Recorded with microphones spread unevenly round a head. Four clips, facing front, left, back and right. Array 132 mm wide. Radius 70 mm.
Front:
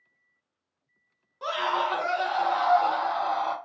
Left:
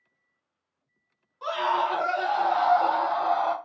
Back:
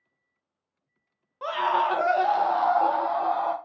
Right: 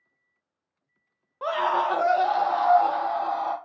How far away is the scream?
About 0.8 m.